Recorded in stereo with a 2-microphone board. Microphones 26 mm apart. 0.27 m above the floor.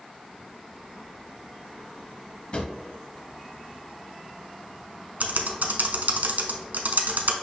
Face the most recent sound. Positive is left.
turn(degrees=-80)